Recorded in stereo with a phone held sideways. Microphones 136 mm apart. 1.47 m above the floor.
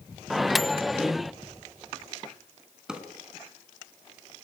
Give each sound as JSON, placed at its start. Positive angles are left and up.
{"t": 0.3, "sound": "a microwave", "side_deg": 0, "distance_m": 0.5}
{"t": 2.9, "sound": "a drawer", "side_deg": -5, "distance_m": 4.0}